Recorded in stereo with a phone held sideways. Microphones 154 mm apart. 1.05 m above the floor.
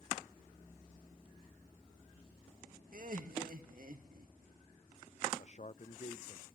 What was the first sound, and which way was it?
Laughter, 60° right (ahead or behind).